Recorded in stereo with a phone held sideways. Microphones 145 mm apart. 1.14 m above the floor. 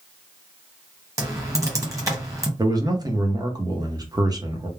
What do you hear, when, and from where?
1.2 s typing on a keyboard: 20° right (ahead or behind), 0.9 m
2.6 s a man speaking: 30° right (ahead or behind), 0.7 m